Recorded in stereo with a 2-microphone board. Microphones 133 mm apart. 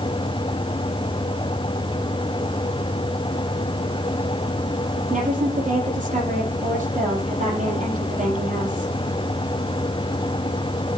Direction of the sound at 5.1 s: 75° right (ahead or behind).